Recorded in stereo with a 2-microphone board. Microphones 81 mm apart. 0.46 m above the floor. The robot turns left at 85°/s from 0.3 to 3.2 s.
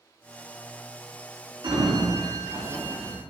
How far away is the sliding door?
About 2.5 m.